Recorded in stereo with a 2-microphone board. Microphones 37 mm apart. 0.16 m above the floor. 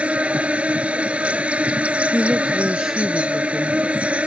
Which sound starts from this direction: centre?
A woman speaking, at 2.1 s.